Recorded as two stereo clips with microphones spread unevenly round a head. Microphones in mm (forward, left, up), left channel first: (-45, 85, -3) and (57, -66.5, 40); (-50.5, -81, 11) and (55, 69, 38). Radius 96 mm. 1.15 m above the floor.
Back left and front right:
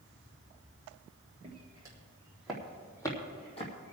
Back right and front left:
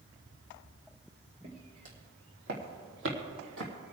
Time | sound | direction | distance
1.4 | footsteps | 5° left | 4 m